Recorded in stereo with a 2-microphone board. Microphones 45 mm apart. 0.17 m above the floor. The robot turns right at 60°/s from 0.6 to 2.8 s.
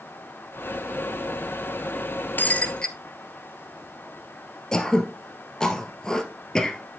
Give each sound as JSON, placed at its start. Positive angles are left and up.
{"t": 2.4, "sound": "breaking glass", "side_deg": 45, "distance_m": 1.1}
{"t": 4.7, "sound": "throat clearing", "side_deg": 15, "distance_m": 1.6}